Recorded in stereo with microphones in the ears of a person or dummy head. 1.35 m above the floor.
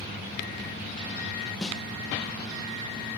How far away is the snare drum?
About 0.6 m.